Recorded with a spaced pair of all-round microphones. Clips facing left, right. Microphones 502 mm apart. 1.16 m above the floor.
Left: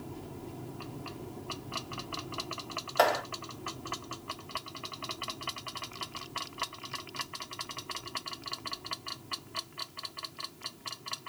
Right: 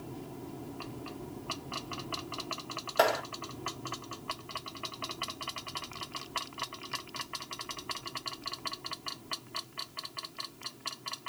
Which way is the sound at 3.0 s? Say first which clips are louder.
Left 1 dB; 45° right (ahead or behind).